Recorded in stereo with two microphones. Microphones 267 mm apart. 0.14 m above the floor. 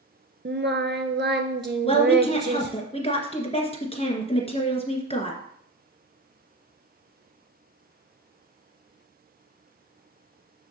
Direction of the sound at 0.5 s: 45° right (ahead or behind).